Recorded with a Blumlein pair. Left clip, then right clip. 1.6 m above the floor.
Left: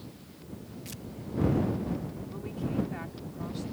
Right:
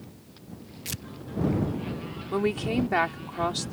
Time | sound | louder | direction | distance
0.8 | tearing paper | right 11 dB | 60° right | ?
2.3 | a woman speaking | right 10 dB | 40° right | ?